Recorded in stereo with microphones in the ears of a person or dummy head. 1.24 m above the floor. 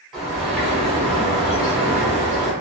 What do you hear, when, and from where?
0.1 s a bird: centre (ahead or behind), 0.7 m